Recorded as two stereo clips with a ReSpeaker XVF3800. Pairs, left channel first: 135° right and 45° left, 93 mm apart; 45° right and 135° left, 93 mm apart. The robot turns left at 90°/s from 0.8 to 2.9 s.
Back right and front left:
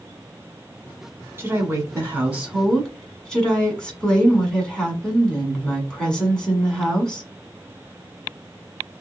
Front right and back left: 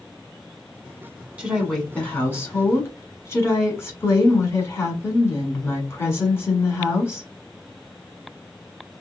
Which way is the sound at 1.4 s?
75° left.